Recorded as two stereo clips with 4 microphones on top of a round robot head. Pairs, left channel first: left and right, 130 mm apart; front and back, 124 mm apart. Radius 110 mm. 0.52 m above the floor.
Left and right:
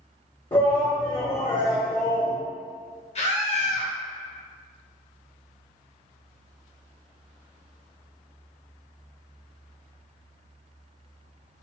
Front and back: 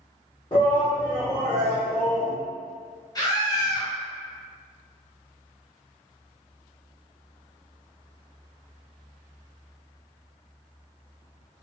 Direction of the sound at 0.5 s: 45° left.